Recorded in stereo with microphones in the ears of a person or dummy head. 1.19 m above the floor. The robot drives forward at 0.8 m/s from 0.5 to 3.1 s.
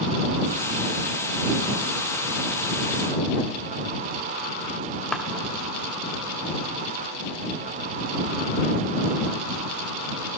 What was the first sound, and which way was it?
A clap, 5° left (ahead or behind).